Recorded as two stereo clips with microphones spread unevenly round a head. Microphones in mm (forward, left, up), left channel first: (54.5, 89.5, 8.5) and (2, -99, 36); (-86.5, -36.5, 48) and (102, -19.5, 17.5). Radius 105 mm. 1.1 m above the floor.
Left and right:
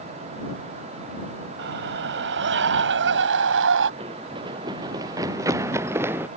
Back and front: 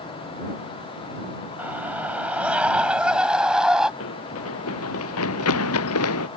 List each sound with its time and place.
1.6 s a scream: 80° right; by 3.9 s 85° right
4.0 s running footsteps: 170° right; by 6.3 s 175° left